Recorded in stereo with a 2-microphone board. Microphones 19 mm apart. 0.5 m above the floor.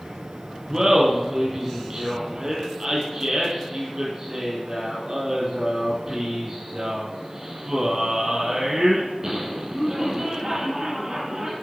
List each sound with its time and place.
0.7 s laughter: 30° right (ahead or behind), 5 m